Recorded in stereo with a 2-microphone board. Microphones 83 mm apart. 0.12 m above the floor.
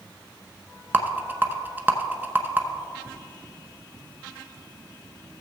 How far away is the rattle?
About 0.8 m.